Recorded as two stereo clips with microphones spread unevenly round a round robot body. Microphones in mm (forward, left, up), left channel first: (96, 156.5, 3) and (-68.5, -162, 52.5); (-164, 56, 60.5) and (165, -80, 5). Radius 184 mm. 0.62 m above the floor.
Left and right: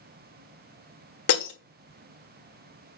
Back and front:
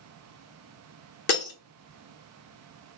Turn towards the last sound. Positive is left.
turn(degrees=105)